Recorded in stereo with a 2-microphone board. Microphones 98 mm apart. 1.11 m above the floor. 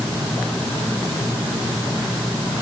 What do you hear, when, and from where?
Only background noise.